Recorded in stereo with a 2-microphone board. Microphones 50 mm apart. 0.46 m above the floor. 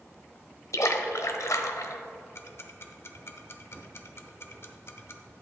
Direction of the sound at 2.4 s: 55° left (ahead or behind).